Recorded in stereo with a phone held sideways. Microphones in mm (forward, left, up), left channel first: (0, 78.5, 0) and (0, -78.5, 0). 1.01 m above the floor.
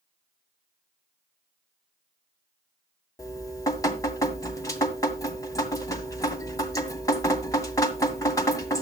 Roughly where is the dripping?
Left.